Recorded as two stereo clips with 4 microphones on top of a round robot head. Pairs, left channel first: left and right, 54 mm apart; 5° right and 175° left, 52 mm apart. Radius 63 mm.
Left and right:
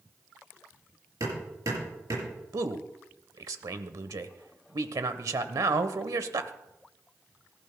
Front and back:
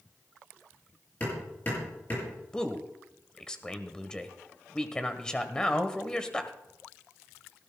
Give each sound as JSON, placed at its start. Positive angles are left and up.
{"t": 1.2, "sound": "hammering", "azimuth_deg": -65, "distance_m": 7.0}
{"t": 2.5, "sound": "a man speaking", "azimuth_deg": -80, "distance_m": 1.0}